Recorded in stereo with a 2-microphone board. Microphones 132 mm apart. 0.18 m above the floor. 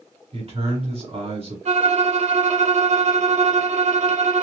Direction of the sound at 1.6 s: 60° right (ahead or behind).